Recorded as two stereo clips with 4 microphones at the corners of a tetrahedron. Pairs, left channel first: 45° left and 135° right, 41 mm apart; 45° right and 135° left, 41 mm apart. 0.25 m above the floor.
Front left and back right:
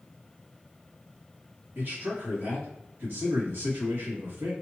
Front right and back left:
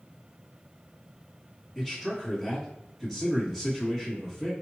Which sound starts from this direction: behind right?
A man speaking, at 1.8 s.